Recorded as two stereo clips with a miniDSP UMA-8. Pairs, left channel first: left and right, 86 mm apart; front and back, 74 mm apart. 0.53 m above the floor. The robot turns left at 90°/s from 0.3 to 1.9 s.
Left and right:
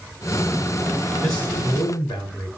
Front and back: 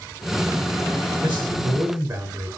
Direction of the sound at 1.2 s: 175° right.